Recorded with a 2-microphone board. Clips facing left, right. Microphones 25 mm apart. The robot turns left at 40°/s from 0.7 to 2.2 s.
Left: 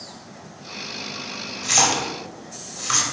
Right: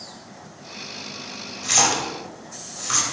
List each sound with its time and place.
1.6 s a splash: 5° right (ahead or behind), 1.5 m; by 3.0 s 20° left (ahead or behind), 1.5 m